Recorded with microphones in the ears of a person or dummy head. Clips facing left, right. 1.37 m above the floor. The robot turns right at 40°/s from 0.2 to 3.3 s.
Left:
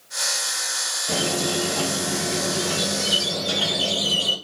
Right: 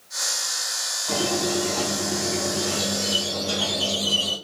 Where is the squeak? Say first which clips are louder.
Right 1 dB; 20° left, 1.6 m; by 4.3 s 110° left, 1.6 m.